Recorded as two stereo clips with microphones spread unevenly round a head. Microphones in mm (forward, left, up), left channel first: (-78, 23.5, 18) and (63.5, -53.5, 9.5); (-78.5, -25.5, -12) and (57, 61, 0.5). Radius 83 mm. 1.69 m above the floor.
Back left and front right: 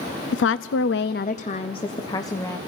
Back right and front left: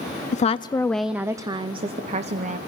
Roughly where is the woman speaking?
Behind.